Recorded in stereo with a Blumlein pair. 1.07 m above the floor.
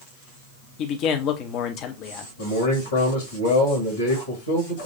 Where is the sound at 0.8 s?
35° left, 1.0 m.